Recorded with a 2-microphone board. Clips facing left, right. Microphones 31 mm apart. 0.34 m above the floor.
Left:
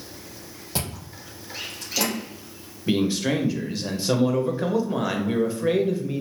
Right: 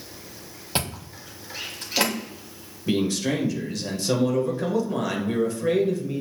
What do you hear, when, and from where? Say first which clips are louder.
0.8 s chewing: right 3 dB; 45° right (ahead or behind), 1.1 m
2.9 s a man speaking: left 1 dB; 20° left (ahead or behind), 0.9 m